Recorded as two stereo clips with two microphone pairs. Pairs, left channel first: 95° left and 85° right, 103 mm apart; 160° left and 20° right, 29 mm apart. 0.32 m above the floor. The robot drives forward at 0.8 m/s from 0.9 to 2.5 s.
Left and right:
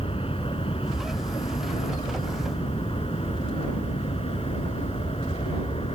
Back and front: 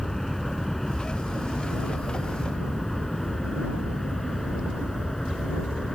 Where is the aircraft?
80° left; by 6.0 s 85° left.